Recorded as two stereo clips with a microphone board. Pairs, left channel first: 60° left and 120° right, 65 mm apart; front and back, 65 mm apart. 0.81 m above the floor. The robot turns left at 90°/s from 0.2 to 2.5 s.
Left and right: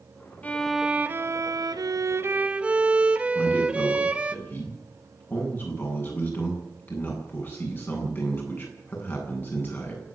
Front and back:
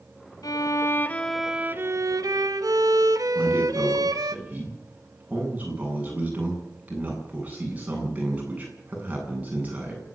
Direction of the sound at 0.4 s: 5° right.